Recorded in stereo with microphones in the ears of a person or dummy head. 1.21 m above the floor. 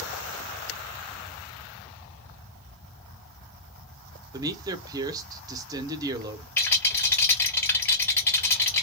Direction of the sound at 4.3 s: 20° right (ahead or behind).